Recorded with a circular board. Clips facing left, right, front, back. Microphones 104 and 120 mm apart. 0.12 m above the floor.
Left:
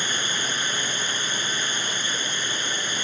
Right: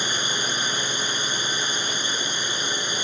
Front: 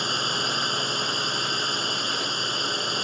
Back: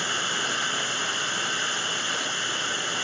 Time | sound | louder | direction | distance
0.0 | a drone | right 1 dB, front 1 dB | 40° right | ?